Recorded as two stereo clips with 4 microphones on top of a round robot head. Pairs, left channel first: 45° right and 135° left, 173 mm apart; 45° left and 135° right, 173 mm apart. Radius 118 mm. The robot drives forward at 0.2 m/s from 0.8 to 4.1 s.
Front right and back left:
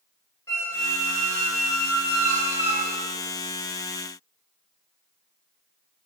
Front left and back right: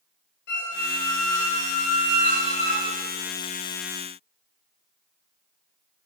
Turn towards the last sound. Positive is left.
turn(degrees=125)